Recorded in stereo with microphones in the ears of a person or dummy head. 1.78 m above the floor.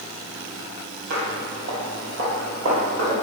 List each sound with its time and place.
1.1 s footsteps: 40° right (ahead or behind), 2.5 m; by 3.1 s 30° right (ahead or behind), 3.5 m